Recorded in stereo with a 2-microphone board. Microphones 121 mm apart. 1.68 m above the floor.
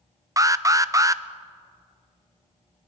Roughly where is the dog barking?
I don't hear a dog barking.